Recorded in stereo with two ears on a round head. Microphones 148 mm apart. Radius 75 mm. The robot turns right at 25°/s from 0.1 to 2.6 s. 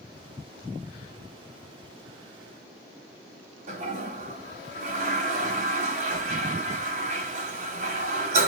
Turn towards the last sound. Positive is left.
turn(degrees=-40)  # may be behind; listen again after turning